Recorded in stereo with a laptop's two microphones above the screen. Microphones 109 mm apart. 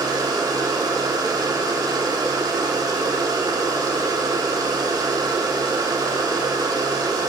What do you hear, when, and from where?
0.0 s a machine running: 40° right (ahead or behind), 1.0 m